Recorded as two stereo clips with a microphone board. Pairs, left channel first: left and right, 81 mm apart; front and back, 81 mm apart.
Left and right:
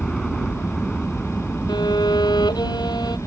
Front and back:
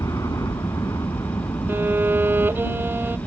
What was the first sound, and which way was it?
A helicopter, 5° left.